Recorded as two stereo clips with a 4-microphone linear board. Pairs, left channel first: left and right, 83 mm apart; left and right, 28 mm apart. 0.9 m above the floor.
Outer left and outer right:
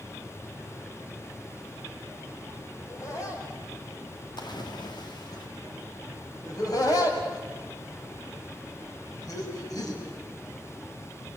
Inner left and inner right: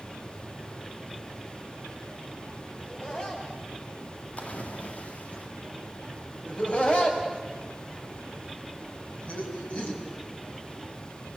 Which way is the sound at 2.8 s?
45° left (ahead or behind).